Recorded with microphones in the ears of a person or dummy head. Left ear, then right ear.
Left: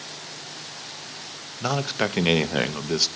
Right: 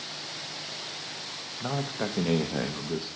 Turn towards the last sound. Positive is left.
turn(degrees=75)  # may be behind; listen again after turning